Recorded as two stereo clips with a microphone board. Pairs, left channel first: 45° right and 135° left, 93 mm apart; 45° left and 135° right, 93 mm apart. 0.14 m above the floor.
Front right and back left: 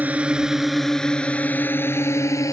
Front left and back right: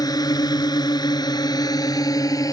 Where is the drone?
65° left; by 2.5 s straight ahead.